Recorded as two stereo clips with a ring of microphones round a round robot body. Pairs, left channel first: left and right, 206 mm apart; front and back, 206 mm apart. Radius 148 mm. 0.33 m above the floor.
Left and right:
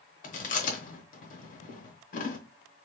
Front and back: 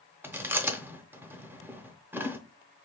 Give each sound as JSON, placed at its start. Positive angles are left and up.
{"t": 0.2, "sound": "chewing", "azimuth_deg": 105, "distance_m": 0.9}